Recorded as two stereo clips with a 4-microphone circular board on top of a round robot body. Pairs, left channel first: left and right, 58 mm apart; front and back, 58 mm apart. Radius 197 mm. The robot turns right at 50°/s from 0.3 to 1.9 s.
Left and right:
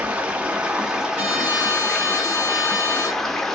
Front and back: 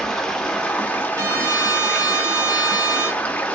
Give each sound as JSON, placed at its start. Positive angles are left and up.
{"t": 0.0, "sound": "running water", "azimuth_deg": -65, "distance_m": 0.9}
{"t": 1.1, "sound": "a trumpet", "azimuth_deg": -150, "distance_m": 1.6}